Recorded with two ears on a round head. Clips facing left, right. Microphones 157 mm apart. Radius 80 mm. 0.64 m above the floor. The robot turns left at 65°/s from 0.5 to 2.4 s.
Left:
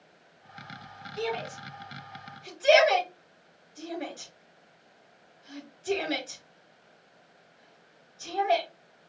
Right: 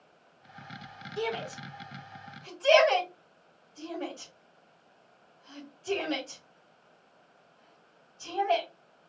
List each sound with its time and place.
1.2 s a shout: 65° right (ahead or behind), 3 m; by 8.7 s 10° left (ahead or behind), 3 m